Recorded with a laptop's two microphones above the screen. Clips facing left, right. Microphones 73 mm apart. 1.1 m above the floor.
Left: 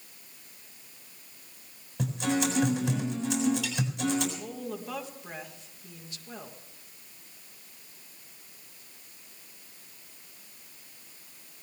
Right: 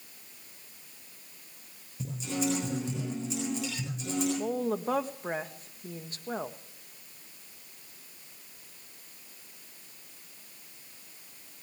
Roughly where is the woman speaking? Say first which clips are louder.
Right 7 dB; right.